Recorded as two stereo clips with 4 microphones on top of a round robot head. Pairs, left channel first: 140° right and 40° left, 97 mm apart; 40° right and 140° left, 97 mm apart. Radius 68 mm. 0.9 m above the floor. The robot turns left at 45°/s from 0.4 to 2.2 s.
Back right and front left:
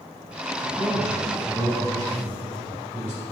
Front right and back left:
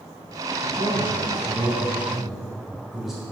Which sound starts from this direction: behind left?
A man speaking, at 0.6 s.